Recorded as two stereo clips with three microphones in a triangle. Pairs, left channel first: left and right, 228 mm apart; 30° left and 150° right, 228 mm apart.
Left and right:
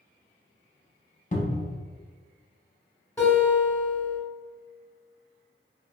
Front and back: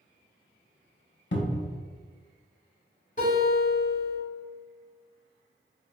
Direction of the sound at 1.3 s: 45° left.